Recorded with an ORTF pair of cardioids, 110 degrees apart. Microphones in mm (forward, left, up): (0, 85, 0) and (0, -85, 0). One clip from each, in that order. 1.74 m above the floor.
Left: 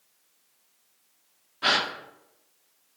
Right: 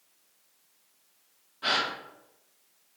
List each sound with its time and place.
1.6 s a gasp: 35° left, 0.7 m